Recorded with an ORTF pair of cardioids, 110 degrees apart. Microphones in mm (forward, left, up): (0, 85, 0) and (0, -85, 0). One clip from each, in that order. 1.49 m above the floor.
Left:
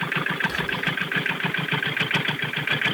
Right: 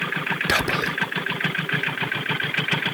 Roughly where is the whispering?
Ahead right.